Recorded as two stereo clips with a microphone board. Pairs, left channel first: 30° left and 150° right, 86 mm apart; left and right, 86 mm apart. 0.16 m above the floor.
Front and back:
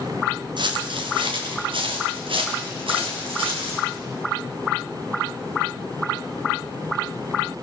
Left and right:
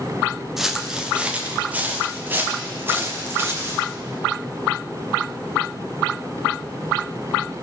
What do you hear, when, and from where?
0.6 s footsteps: 175° right, 1.8 m; by 3.8 s 150° right, 4 m